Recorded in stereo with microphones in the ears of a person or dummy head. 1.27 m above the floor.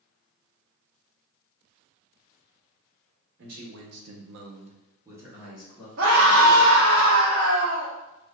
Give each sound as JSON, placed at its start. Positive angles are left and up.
{"t": 3.4, "sound": "a man speaking", "side_deg": -60, "distance_m": 0.8}
{"t": 6.0, "sound": "a scream", "side_deg": -70, "distance_m": 0.6}